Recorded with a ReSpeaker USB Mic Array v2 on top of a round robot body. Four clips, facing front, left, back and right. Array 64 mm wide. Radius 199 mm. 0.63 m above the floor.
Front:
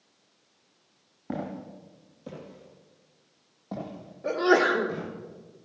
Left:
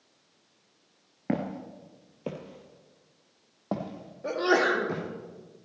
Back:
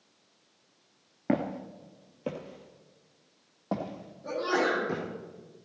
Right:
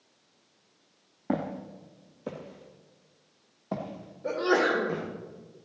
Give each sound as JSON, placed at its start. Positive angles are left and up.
{"t": 1.3, "sound": "footsteps", "azimuth_deg": 150, "distance_m": 0.9}
{"t": 4.2, "sound": "a sneeze", "azimuth_deg": 35, "distance_m": 2.5}